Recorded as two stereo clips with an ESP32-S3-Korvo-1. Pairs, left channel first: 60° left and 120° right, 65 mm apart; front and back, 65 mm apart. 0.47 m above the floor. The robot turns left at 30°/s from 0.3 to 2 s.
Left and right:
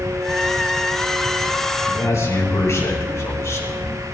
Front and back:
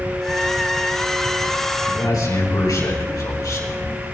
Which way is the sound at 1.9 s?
20° left.